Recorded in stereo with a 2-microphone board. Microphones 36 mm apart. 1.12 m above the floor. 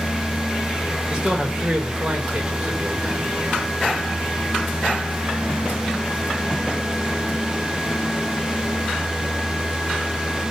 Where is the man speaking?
20° right (ahead or behind), 5 m.